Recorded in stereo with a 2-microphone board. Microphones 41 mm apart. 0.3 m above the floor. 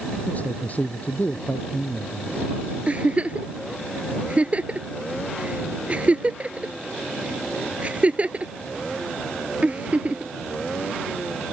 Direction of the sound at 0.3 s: 35° left (ahead or behind).